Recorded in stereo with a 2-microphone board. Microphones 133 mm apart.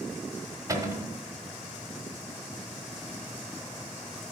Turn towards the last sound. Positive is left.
turn(degrees=-25)  # may be behind; listen again after turning